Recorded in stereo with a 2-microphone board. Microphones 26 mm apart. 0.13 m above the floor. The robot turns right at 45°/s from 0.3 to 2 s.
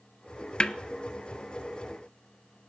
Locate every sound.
0.6 s a snare drum: 35° left (ahead or behind), 0.6 m; by 0.7 s 30° left (ahead or behind), 0.6 m